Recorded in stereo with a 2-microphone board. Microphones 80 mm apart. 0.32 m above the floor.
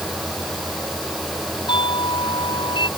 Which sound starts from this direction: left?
A doorbell, at 1.7 s.